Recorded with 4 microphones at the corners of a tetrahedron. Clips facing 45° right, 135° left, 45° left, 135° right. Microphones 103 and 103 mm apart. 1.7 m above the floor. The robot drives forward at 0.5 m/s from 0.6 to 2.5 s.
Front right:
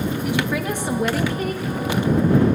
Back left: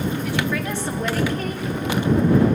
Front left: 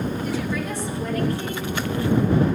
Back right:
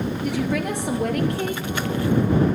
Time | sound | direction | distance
0.2 | a woman speaking | 120° right | 1.6 m